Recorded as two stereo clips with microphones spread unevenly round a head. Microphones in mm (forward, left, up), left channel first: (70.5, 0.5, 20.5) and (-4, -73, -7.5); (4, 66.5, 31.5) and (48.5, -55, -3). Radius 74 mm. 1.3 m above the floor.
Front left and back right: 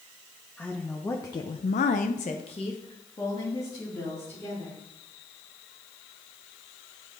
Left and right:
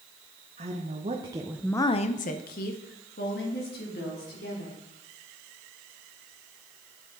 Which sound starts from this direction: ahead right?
A woman speaking, at 0.6 s.